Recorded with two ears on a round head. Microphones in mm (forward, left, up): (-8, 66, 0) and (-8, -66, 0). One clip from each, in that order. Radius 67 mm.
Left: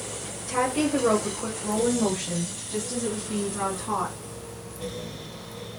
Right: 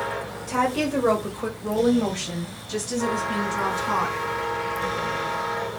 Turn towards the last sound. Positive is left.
turn(degrees=-75)  # may be behind; listen again after turning